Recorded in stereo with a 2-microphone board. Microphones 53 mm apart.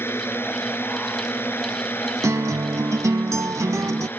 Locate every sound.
0.0 s a drone: 45° left (ahead or behind); by 4.2 s 40° left (ahead or behind)
2.2 s a guitar: 70° right (ahead or behind)